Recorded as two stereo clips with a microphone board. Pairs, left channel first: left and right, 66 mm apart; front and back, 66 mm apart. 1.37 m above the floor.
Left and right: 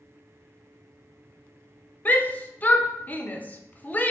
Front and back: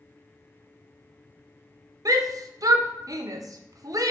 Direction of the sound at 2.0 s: 155° left.